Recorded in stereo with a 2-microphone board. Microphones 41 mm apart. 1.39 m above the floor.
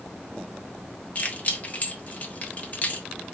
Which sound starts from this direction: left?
Keys jangling, at 1.1 s.